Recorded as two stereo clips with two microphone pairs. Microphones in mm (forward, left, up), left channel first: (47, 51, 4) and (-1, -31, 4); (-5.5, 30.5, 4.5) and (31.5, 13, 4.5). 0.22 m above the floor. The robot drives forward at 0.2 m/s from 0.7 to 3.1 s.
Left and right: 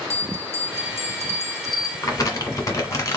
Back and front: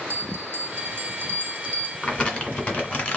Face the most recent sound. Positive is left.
turn(degrees=110)